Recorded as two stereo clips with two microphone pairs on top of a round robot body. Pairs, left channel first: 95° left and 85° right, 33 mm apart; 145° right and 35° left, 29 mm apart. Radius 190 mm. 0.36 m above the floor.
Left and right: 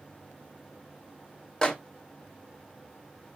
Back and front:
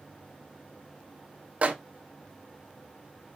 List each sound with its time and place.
1.6 s a microwave: 40° left, 0.9 m